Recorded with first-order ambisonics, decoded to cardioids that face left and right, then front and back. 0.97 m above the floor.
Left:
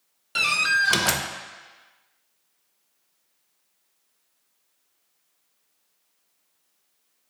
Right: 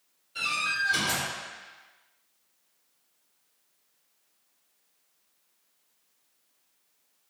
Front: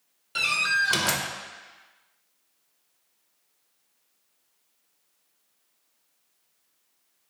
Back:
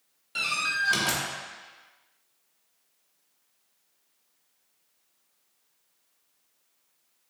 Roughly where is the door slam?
Left.